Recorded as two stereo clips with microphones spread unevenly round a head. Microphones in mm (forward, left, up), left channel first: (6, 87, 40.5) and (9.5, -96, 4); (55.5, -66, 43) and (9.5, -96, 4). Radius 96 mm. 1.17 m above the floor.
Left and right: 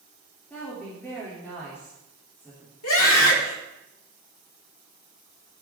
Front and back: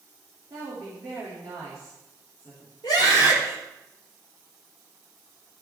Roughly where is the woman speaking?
Behind.